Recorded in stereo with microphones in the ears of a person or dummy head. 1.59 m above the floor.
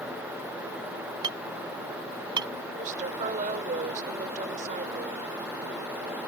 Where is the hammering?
25° right (ahead or behind).